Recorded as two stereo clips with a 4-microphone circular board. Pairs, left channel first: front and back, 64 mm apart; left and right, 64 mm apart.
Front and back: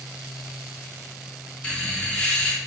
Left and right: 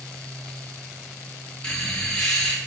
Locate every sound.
1.6 s laughter: 35° left, 0.6 m